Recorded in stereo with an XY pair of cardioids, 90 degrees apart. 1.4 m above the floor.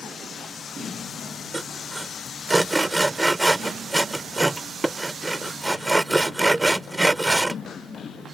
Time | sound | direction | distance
1.5 | sawing | 20° right | ?